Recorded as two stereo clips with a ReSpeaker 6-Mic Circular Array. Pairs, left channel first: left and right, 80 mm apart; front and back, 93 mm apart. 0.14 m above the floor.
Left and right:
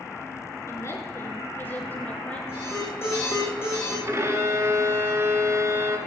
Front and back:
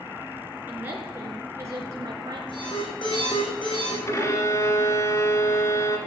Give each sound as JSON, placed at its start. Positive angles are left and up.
{"t": 0.7, "sound": "a woman speaking", "azimuth_deg": 120, "distance_m": 2.0}
{"t": 2.5, "sound": "an alarm", "azimuth_deg": 30, "distance_m": 5.5}
{"t": 4.1, "sound": "a violin", "azimuth_deg": -45, "distance_m": 1.8}